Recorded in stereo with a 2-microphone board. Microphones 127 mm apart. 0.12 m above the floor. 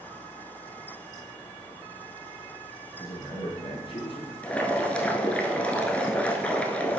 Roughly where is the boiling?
Centre.